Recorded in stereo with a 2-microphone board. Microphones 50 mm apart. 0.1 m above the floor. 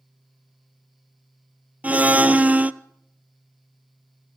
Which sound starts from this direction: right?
A blender, at 1.8 s.